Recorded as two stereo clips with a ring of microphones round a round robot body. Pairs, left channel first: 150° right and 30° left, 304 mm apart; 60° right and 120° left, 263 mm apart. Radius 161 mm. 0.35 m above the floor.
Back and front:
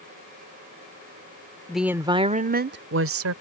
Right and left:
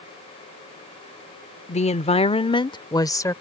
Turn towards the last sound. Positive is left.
turn(degrees=15)